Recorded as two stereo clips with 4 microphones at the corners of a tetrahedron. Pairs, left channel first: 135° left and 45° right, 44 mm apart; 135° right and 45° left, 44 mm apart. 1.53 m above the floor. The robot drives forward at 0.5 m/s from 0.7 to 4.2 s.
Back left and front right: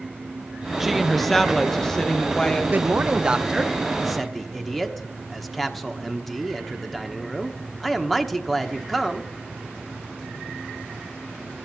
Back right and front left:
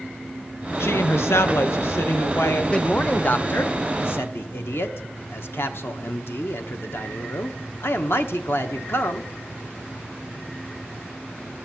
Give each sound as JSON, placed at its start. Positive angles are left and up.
{"t": 0.8, "sound": "a woman speaking", "azimuth_deg": -130, "distance_m": 0.9}
{"t": 2.7, "sound": "a man speaking", "azimuth_deg": -75, "distance_m": 0.7}